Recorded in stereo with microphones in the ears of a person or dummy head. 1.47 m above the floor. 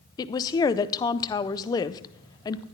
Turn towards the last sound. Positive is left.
turn(degrees=20)  # may be behind; listen again after turning